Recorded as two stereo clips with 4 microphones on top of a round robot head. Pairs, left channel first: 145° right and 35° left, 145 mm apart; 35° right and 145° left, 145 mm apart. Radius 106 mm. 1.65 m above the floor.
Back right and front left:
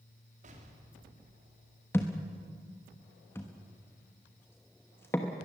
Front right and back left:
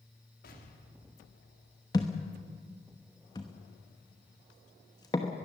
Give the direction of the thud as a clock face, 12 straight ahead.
3 o'clock.